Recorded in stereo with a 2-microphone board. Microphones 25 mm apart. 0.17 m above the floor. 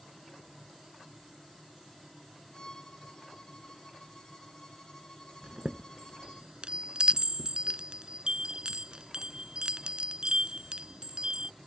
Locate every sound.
2.5 s a violin: 30° left (ahead or behind)
5.4 s a chime: 45° right (ahead or behind)